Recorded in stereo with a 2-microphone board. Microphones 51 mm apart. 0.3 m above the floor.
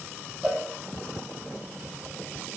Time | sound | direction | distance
0.4 | a cowbell | 10° right (ahead or behind) | 0.8 m